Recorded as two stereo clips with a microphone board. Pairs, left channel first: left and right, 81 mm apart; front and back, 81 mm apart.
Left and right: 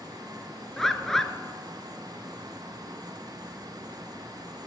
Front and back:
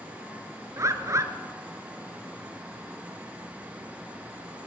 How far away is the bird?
About 1.5 m.